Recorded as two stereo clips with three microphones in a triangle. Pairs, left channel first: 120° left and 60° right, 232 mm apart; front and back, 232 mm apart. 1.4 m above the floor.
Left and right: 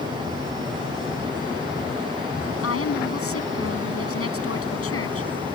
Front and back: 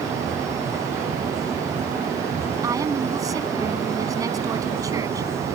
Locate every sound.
2.6 s a woman speaking: 105° left